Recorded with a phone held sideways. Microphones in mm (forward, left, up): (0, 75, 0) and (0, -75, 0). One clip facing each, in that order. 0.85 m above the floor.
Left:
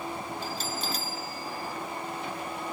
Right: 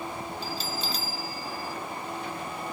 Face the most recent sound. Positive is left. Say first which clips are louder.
# even
turn(degrees=55)  # may be behind; listen again after turning